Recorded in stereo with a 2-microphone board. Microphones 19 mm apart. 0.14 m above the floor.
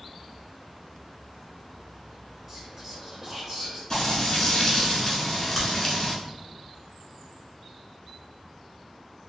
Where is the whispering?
15° right (ahead or behind), 1.7 m.